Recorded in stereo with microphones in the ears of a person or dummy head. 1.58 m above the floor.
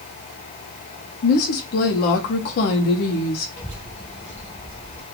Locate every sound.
1.2 s a woman speaking: 50° left (ahead or behind), 0.6 m
3.6 s a child speaking: 5° left (ahead or behind), 0.5 m